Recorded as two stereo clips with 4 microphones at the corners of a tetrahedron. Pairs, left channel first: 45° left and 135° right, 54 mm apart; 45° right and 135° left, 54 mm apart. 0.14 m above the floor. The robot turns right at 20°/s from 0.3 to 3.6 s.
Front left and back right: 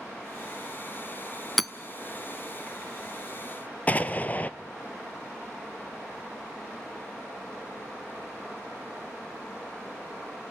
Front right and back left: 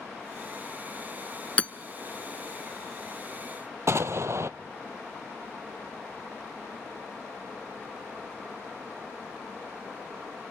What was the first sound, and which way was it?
Hammering, 40° right.